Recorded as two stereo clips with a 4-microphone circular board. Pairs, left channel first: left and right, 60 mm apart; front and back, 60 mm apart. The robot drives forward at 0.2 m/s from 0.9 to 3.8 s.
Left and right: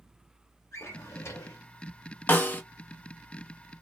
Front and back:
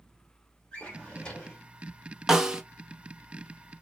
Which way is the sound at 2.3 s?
105° left.